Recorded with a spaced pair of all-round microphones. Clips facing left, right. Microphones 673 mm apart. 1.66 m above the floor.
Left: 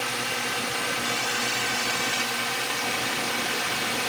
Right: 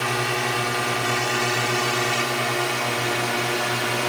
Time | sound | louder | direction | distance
0.0 | a drone | right 7 dB | 75° right (ahead or behind) | ?